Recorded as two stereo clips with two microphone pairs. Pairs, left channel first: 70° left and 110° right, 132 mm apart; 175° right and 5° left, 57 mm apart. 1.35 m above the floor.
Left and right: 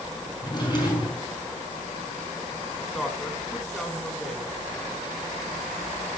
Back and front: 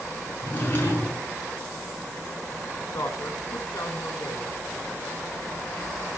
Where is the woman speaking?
155° left, 6 m.